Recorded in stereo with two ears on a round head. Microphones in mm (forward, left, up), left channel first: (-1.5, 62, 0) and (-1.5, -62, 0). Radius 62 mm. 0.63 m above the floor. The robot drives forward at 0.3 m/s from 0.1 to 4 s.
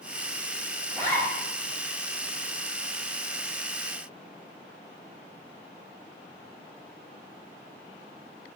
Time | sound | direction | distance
0.9 | a zipper | 20° left (ahead or behind) | 1.2 m